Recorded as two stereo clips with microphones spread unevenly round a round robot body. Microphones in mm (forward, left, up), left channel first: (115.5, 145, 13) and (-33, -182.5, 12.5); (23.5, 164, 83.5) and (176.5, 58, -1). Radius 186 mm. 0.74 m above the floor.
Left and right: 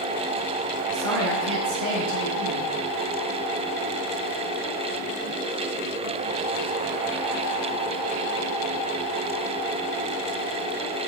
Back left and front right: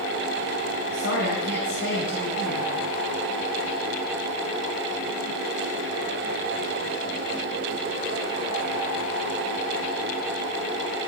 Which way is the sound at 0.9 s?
175° right.